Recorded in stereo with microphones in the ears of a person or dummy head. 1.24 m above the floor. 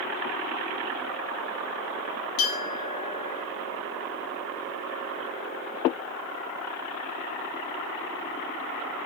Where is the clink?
70° left (ahead or behind), 1.4 m.